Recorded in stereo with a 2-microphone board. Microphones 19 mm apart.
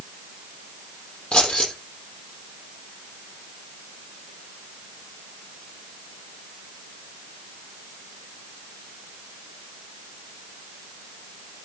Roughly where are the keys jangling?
Left.